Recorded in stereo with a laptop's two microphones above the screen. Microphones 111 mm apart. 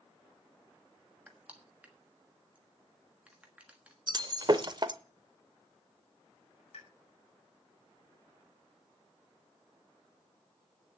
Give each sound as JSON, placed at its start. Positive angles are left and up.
{"t": 1.3, "sound": "crushing", "side_deg": -10, "distance_m": 1.3}
{"t": 4.1, "sound": "breaking glass", "side_deg": -40, "distance_m": 0.8}
{"t": 6.7, "sound": "a pop", "side_deg": 60, "distance_m": 4.0}